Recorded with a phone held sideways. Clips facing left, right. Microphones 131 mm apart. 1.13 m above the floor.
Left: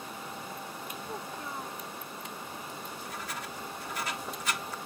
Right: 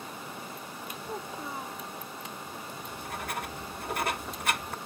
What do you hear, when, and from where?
1.1 s a child speaking: 10° right (ahead or behind)
2.8 s writing: 55° right (ahead or behind)